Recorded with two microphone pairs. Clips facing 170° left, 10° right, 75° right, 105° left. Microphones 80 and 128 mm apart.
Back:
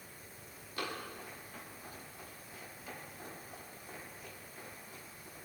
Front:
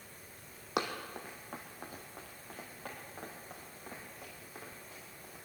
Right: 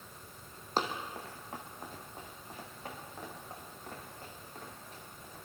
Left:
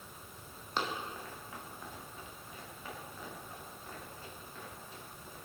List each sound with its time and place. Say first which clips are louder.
0.8 s running footsteps: front 5 dB, right 3 dB; 20° right, 2 m; by 5.3 s 25° right, 9.5 m